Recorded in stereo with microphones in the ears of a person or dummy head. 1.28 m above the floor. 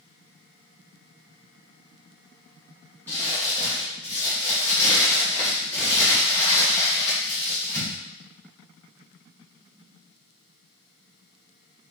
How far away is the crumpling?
About 2 m.